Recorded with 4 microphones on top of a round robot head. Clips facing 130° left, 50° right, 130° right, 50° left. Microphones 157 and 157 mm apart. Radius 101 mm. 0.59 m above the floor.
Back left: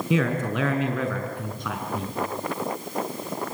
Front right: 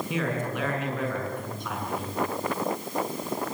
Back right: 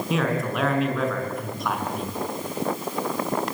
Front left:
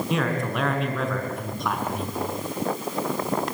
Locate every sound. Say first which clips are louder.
0.1 s a man speaking: back left 7 dB, back right 3 dB; 140° left, 6 m